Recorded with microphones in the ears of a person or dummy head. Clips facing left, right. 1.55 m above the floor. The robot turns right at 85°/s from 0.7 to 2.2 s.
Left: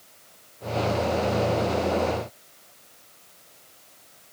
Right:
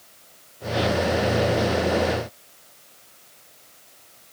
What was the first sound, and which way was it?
Only background noise.